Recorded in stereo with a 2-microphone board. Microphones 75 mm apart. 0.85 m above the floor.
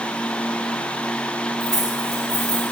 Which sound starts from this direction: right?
Keys jangling, at 1.6 s.